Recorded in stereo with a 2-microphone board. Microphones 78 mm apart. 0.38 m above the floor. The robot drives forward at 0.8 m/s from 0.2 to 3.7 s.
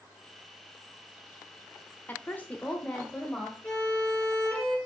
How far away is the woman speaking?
About 0.8 m.